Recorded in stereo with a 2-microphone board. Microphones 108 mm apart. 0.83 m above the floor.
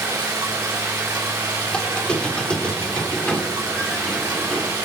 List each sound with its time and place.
0.0 s running water: 30° right (ahead or behind), 6 m
1.7 s a squeak: 10° left (ahead or behind), 1.6 m